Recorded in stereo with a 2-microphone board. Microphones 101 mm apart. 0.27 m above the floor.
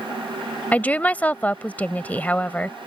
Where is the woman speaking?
15° left (ahead or behind).